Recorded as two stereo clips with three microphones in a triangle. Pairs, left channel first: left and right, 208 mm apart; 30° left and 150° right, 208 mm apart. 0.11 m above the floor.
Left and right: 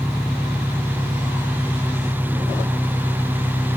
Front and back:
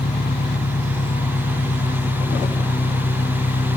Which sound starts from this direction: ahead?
An engine running, at 0.0 s.